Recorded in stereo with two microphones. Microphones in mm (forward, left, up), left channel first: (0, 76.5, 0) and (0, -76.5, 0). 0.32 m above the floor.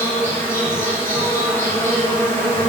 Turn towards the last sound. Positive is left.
turn(degrees=15)  # may be behind; listen again after turning